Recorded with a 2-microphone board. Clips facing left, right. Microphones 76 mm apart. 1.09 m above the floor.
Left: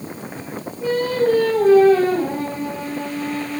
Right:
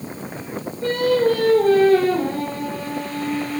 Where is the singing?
10° left (ahead or behind), 6.5 m.